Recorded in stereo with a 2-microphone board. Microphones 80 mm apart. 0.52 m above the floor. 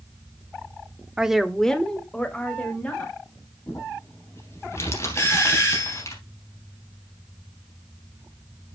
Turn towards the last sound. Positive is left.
turn(degrees=35)  # may be behind; listen again after turning